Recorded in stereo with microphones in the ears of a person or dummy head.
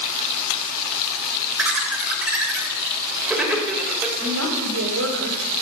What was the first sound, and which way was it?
Laughter, 10° right (ahead or behind).